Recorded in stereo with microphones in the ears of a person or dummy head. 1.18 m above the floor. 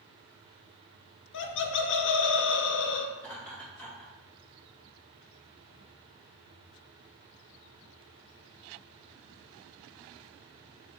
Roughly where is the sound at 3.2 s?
Centre.